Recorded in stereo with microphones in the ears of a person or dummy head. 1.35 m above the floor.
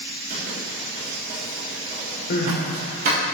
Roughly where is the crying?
Left.